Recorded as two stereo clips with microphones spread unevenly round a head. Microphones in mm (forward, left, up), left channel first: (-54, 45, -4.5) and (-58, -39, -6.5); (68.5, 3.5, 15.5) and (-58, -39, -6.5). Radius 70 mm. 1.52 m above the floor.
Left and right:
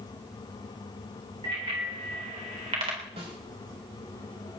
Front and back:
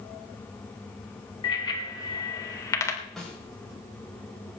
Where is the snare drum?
70° right, 6 m.